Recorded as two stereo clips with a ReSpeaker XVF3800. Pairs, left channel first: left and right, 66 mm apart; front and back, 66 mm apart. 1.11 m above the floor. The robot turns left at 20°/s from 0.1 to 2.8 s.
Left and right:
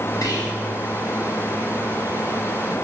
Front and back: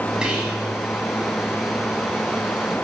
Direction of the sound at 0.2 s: 105° left.